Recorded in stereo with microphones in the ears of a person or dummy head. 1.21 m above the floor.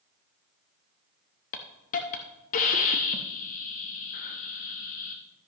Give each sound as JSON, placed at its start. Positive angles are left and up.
{"t": 1.5, "sound": "a hiss", "side_deg": 40, "distance_m": 0.7}